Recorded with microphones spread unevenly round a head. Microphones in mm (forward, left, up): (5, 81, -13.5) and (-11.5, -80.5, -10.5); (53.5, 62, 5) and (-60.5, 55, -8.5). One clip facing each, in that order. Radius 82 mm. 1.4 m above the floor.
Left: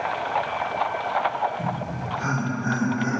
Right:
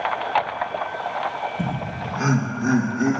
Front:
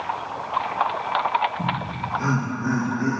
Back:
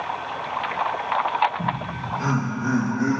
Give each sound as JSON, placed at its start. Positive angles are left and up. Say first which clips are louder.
{"t": 1.6, "sound": "laughter", "louder": "right 1 dB, even", "azimuth_deg": -80, "distance_m": 1.1}